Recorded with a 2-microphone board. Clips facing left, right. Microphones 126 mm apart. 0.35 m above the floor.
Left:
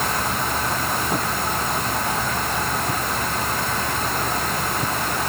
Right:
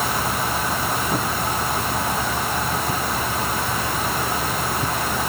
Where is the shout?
No shout in this recording.